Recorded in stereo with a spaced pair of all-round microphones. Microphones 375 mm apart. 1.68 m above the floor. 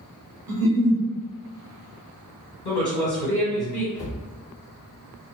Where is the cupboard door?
20° left (ahead or behind), 1.3 m.